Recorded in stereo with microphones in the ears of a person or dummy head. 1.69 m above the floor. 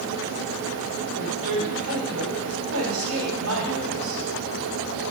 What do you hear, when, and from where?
1.2 s a woman speaking: 80° right, 6.5 m